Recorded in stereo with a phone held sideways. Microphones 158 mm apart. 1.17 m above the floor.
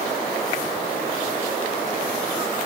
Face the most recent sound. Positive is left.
No sound to turn to.